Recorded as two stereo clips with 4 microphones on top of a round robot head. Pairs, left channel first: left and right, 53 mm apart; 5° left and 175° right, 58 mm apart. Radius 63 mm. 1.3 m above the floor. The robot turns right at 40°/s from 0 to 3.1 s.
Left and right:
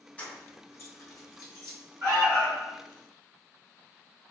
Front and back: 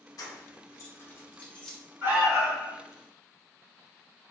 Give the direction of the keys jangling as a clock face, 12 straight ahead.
11 o'clock.